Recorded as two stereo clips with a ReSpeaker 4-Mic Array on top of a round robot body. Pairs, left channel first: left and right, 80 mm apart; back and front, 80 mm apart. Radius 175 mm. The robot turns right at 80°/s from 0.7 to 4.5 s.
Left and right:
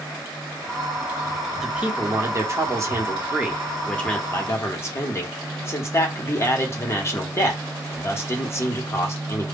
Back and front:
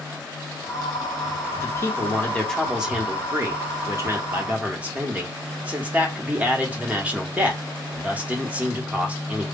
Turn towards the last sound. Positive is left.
turn(degrees=60)